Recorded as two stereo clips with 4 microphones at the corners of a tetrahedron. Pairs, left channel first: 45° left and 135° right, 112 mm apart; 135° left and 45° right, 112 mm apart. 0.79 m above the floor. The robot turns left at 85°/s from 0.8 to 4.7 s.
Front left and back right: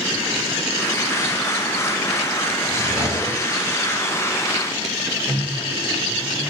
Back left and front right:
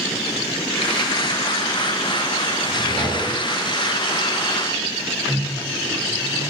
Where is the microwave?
110° right, 0.9 m.